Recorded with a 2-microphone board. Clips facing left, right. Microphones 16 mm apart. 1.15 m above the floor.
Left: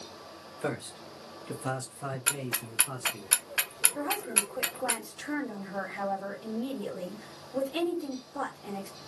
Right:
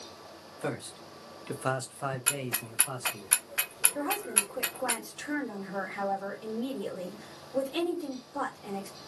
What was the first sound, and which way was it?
A man speaking, 15° left (ahead or behind).